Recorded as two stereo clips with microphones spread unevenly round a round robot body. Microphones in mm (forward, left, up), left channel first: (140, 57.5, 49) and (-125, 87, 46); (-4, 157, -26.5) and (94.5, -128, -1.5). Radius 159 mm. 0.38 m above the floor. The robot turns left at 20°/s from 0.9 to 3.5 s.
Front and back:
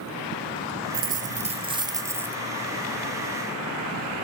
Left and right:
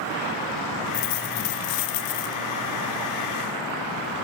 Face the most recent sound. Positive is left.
turn(degrees=65)